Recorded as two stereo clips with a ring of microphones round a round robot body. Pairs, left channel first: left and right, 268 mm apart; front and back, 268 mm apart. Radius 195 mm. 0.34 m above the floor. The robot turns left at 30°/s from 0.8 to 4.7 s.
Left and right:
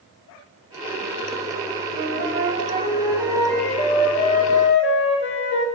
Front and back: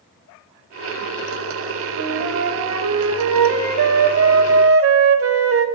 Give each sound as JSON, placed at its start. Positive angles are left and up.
{"t": 1.9, "sound": "a flute", "azimuth_deg": -135, "distance_m": 0.7}